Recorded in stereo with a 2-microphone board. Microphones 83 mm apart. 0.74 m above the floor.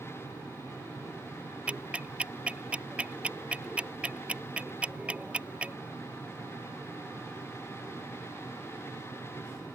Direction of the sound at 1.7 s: 15° right (ahead or behind).